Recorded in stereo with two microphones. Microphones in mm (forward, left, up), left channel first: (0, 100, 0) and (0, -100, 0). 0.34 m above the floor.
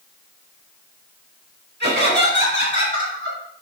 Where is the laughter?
60° right (ahead or behind), 3 m; by 3.4 s 70° right (ahead or behind), 2.5 m.